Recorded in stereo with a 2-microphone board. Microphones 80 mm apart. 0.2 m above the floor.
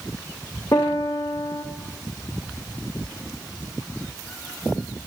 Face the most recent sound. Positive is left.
turn(degrees=45)  # may be behind; listen again after turning